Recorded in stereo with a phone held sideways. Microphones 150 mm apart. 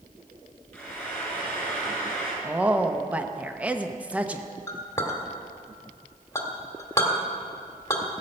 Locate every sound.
0.7 s frying: 5° left (ahead or behind), 4 m
2.4 s a woman speaking: 10° right (ahead or behind), 0.7 m
4.7 s a clink: 20° left (ahead or behind), 1.6 m